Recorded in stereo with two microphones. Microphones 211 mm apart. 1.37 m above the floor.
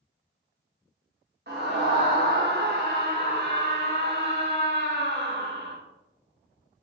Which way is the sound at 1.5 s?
50° right (ahead or behind).